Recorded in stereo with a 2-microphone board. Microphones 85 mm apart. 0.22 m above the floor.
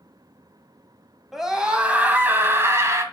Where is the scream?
5° right (ahead or behind), 1.6 m; by 3.0 s 35° right (ahead or behind), 1.9 m.